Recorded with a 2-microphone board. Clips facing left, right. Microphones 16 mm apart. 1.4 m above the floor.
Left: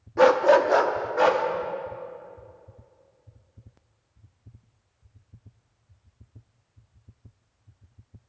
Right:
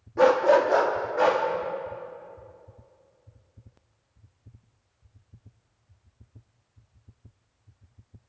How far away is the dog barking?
About 0.9 m.